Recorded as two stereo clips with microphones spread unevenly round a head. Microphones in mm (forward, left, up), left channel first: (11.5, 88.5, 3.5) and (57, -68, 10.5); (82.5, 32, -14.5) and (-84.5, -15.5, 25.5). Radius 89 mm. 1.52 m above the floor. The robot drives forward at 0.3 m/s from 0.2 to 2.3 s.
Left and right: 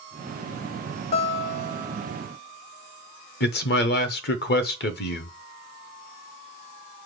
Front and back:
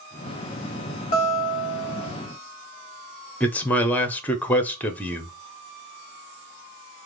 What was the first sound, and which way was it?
A guitar, 70° left.